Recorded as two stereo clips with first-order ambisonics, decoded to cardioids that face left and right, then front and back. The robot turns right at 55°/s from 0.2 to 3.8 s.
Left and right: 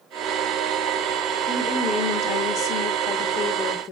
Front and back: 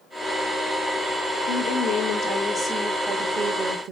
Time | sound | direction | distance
1.5 | a woman speaking | 15° left | 0.5 m